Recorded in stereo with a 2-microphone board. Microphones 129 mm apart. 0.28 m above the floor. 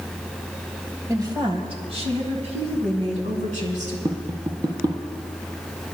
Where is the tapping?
35° right (ahead or behind), 1.2 m.